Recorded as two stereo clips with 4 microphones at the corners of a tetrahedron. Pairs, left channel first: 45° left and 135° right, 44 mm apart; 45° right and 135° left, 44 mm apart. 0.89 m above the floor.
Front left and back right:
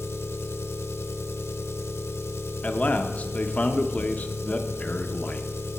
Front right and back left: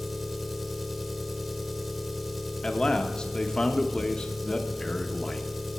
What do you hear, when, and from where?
0.0 s an engine running: 45° left, 0.9 m
2.6 s a man speaking: 10° left, 0.9 m